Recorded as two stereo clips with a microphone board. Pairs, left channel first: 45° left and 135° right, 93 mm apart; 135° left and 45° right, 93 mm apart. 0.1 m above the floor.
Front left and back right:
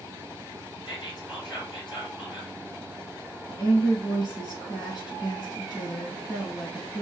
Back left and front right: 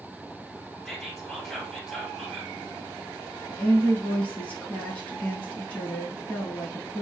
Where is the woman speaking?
65° left, 2.5 m.